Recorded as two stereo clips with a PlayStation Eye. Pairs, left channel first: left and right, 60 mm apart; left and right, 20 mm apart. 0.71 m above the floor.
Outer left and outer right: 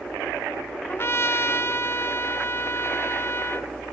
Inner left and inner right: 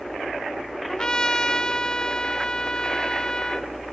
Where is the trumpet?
40° left (ahead or behind), 0.8 m.